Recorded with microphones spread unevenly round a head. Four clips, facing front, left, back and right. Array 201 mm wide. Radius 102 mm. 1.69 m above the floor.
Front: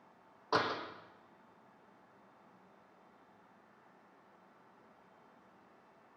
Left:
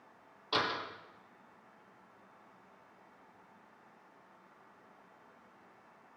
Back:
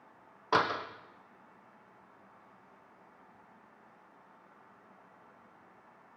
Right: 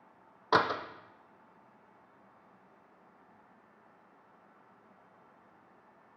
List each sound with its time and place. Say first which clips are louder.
0.5 s a door slam: right 7 dB, back 5 dB; 115° right, 0.6 m